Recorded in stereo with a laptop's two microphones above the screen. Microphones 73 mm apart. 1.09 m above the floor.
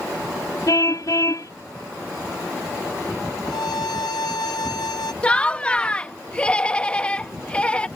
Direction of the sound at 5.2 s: 15° left (ahead or behind).